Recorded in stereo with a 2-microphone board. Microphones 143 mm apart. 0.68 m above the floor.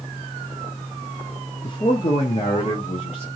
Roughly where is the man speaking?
Left.